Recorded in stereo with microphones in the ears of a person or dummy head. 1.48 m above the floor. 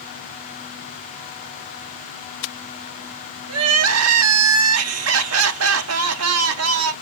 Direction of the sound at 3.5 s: 75° right (ahead or behind).